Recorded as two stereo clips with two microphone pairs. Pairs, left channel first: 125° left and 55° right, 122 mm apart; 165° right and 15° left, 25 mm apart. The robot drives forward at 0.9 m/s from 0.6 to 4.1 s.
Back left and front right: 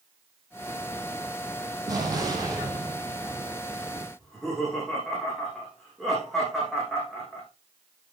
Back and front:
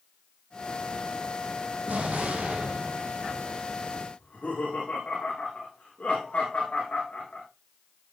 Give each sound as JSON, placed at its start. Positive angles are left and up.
{"t": 1.9, "sound": "an explosion", "azimuth_deg": 5, "distance_m": 5.0}
{"t": 4.2, "sound": "laughter", "azimuth_deg": -145, "distance_m": 9.0}